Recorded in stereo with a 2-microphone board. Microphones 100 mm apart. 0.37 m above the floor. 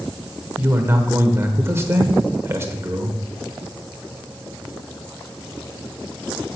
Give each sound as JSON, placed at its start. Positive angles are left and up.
{"t": 0.6, "sound": "a man speaking", "side_deg": -25, "distance_m": 1.0}